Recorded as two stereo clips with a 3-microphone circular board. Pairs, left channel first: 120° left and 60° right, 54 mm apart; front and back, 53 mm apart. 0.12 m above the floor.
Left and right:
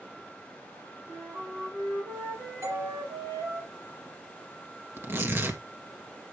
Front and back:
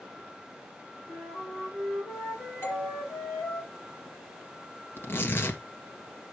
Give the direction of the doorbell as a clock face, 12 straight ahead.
2 o'clock.